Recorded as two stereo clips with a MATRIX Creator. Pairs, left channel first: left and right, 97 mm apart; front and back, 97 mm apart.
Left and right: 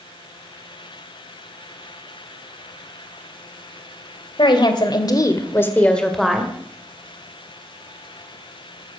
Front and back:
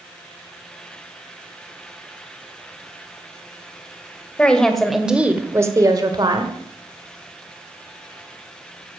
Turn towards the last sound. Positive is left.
turn(degrees=-170)